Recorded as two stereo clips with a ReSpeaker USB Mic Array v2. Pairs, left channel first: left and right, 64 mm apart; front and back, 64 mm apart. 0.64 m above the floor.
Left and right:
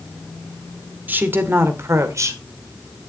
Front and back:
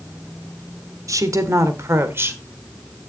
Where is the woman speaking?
155° right, 1.6 m; by 2.4 s 125° right, 2 m.